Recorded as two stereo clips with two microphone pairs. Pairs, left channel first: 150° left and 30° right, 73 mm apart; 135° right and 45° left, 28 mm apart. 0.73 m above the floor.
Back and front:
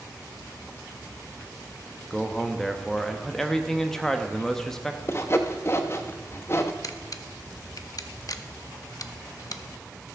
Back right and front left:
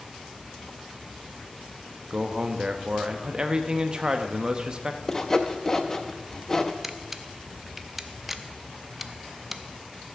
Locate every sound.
2.1 s a man speaking: 75° left, 0.8 m
5.1 s sawing: 165° left, 0.7 m
6.8 s a camera shutter: 125° left, 0.6 m